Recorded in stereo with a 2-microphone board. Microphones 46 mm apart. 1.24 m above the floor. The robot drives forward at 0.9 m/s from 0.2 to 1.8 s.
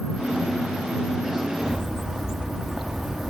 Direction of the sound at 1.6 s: 10° right (ahead or behind).